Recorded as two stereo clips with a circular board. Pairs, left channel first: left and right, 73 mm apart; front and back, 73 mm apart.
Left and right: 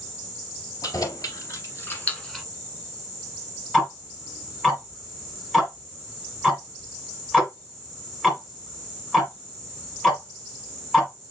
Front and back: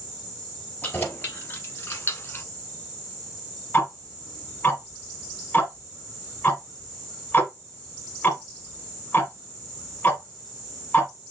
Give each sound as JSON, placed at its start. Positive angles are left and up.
{"t": 0.8, "sound": "keys jangling", "azimuth_deg": 65, "distance_m": 2.5}
{"t": 3.7, "sound": "ticking", "azimuth_deg": 15, "distance_m": 1.5}